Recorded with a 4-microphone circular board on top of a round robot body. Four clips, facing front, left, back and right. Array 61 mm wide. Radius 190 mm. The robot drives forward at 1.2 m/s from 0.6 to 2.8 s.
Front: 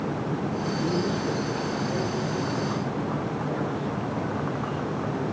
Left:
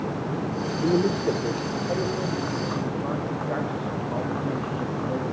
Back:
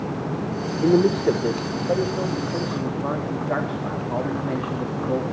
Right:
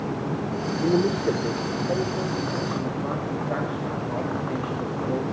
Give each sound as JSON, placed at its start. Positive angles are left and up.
{"t": 0.8, "sound": "a man speaking", "azimuth_deg": -175, "distance_m": 1.5}